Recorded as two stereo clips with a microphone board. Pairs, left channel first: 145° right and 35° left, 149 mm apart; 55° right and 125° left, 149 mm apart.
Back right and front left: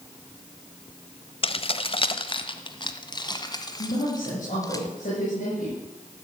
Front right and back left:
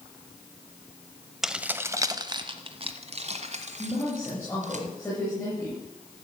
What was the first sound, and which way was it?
Keys jangling, 150° right.